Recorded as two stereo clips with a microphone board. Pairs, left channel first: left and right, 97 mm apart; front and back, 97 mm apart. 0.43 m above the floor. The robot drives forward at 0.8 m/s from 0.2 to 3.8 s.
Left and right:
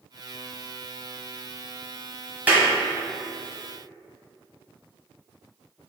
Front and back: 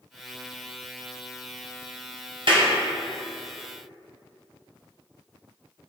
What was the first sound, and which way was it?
A clap, 160° right.